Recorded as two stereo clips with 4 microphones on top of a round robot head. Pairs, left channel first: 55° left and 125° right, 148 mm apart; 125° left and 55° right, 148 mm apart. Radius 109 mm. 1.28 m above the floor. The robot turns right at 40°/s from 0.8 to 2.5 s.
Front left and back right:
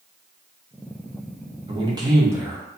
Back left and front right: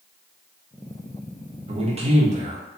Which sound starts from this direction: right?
A man speaking, at 1.7 s.